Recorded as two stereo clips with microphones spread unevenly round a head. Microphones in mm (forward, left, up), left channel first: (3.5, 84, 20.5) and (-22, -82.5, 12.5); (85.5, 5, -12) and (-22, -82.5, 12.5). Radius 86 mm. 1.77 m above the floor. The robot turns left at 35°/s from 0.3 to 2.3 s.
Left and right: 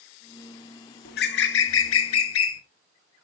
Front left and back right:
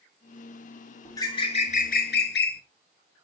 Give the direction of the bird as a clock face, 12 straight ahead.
8 o'clock.